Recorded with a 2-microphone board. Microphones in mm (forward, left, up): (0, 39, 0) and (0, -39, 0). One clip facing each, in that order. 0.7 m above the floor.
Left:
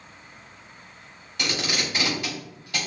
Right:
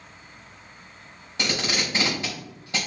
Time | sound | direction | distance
1.4 | tape being pulled | 25° right (ahead or behind) | 3.5 m